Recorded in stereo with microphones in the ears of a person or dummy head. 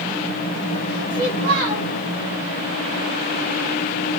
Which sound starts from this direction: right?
A child speaking, at 1.1 s.